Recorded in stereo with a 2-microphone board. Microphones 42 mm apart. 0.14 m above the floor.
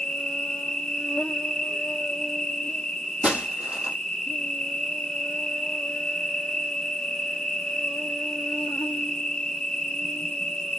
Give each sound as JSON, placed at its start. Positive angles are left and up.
{"t": 0.0, "sound": "an insect", "side_deg": 15, "distance_m": 1.6}
{"t": 3.2, "sound": "breaking glass", "side_deg": -30, "distance_m": 3.0}